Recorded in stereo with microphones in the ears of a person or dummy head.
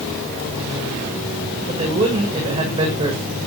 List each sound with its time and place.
1.7 s a man speaking: 30° right (ahead or behind), 8 m